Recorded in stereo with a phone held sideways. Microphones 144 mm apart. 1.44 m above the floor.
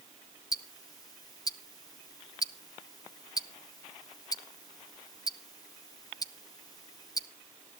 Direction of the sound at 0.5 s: 25° left (ahead or behind).